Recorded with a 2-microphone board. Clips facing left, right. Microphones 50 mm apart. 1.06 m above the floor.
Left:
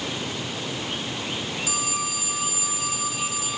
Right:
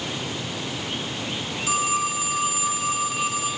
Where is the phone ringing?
40° right (ahead or behind), 0.9 m.